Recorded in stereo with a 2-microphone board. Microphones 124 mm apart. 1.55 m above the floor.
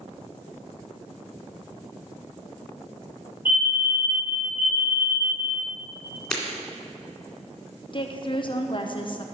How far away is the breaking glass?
About 2 m.